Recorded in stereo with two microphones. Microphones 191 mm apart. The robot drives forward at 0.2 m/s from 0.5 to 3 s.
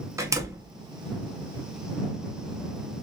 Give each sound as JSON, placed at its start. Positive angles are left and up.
{"t": 0.2, "sound": "a door slam", "side_deg": -15, "distance_m": 0.6}